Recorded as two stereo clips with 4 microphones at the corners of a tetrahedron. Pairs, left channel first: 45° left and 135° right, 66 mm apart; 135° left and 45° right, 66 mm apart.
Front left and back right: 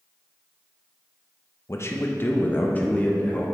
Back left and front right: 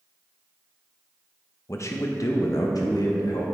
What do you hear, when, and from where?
1.7 s a man speaking: 90° left, 0.9 m; by 3.5 s 115° left, 1.9 m